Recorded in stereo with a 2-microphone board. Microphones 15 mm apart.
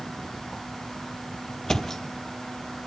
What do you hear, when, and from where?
1.7 s a thud: 40° left (ahead or behind), 1.2 m